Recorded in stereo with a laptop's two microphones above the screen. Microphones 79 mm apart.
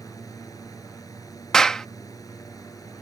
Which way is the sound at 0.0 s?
50° left (ahead or behind).